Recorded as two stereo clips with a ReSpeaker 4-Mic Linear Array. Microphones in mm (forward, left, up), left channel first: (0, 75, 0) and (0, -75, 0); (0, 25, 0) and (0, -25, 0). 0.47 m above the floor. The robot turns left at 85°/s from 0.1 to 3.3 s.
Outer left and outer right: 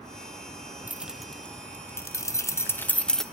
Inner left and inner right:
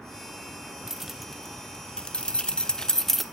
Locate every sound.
0.9 s keys jangling: 10° right (ahead or behind), 0.6 m; by 3.2 s 5° left (ahead or behind), 0.6 m